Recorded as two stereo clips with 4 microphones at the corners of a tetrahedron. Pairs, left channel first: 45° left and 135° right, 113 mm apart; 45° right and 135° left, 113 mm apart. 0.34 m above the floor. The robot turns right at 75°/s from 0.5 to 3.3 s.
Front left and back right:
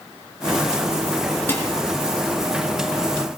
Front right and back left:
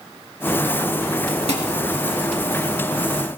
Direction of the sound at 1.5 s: 115° left.